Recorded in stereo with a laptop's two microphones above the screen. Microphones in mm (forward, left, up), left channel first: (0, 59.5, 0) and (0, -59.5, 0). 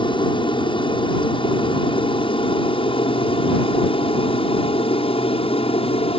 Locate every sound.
0.0 s an aircraft: 45° left (ahead or behind); by 6.2 s 55° left (ahead or behind)